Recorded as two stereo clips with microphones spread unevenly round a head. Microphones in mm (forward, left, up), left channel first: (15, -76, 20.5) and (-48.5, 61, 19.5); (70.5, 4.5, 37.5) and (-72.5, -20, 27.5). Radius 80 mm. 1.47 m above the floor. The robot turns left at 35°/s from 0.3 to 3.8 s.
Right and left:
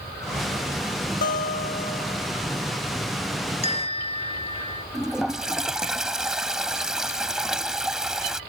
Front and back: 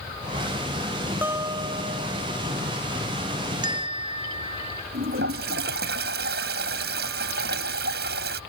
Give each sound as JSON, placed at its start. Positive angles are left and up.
{"t": 1.2, "sound": "a guitar", "azimuth_deg": -90}
{"t": 3.6, "sound": "a bell", "azimuth_deg": -110}
{"t": 4.9, "sound": "a toilet flushing", "azimuth_deg": -160}